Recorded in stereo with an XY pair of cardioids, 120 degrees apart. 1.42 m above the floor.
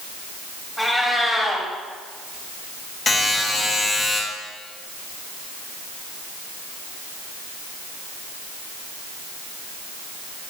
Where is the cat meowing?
5° left, 2.5 m.